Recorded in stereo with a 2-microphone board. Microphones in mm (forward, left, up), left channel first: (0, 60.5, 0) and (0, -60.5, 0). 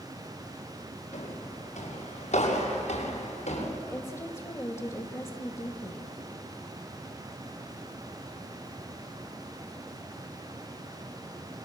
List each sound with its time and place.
1.1 s footsteps: 80° left, 8 m; by 3.7 s 70° left (ahead or behind), 6.5 m
3.8 s a woman speaking: 25° left (ahead or behind), 1.3 m